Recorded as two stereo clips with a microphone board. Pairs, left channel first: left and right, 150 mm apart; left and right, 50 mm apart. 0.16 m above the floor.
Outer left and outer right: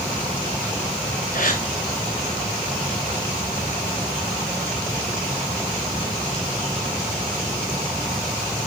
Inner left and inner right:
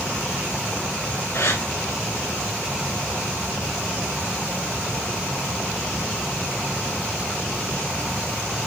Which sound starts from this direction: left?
A gasp, at 1.3 s.